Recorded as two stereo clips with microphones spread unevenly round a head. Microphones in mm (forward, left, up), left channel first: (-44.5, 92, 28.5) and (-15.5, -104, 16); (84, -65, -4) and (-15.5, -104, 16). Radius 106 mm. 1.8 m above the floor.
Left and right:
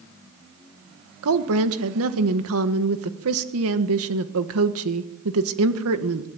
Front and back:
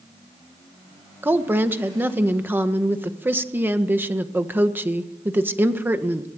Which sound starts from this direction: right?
A woman speaking, at 1.2 s.